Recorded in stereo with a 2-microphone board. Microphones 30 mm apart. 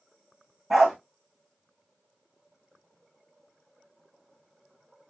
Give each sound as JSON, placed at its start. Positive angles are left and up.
{"t": 0.7, "sound": "a dog barking", "side_deg": 0, "distance_m": 2.5}